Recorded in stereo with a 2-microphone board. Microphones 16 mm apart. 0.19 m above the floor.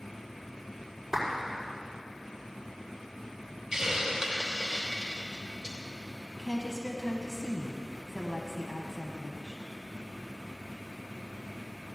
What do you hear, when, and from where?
1.1 s a clap: 15° right (ahead or behind), 5 m
3.7 s a hiss: 40° right (ahead or behind), 3 m
6.4 s a woman speaking: 15° left (ahead or behind), 1.2 m